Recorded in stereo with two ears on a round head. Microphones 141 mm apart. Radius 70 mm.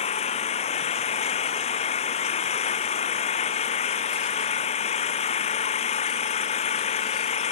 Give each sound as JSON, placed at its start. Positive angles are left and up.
{"t": 0.0, "sound": "an engine running", "side_deg": 40}